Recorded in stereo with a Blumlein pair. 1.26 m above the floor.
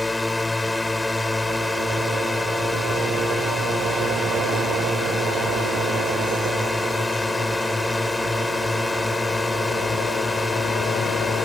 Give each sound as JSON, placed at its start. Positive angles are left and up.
{"t": 0.0, "sound": "a drone", "azimuth_deg": 5}